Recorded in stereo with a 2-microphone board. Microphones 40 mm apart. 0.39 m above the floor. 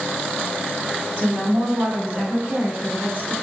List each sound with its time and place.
1.2 s a woman speaking: 65° right (ahead or behind), 2.5 m; by 3.3 s 55° right (ahead or behind), 4 m